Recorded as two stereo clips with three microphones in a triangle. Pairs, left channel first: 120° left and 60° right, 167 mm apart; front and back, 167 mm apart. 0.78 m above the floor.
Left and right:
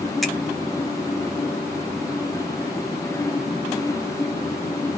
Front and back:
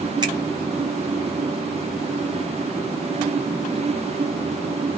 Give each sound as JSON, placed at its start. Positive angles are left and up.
{"t": 0.2, "sound": "a finger snap", "azimuth_deg": -150, "distance_m": 0.8}